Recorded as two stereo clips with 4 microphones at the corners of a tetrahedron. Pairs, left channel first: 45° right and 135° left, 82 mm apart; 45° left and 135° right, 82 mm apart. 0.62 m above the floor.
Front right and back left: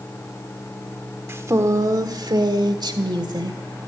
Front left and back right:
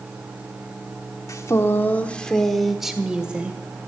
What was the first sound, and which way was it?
A woman speaking, 85° left.